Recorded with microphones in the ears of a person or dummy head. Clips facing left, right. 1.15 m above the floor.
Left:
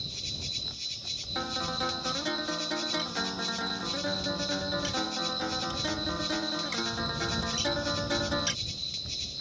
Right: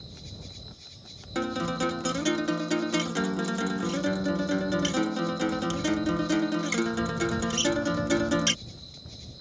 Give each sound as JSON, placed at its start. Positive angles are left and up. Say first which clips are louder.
{"t": 0.0, "sound": "an insect", "louder": "left 1 dB", "side_deg": 40}
{"t": 1.4, "sound": "a guitar", "louder": "right 7 dB", "side_deg": -40}